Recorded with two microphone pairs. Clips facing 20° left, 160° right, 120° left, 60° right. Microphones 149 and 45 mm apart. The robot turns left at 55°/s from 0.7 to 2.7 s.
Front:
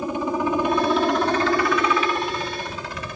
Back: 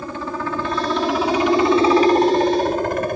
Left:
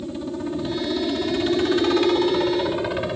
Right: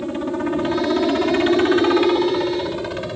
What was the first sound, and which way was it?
A helicopter, 50° right.